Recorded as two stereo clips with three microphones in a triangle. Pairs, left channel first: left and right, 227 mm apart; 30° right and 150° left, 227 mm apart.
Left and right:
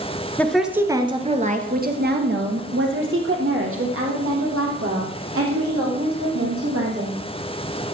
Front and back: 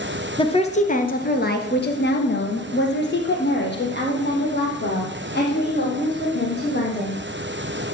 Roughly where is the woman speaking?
Ahead.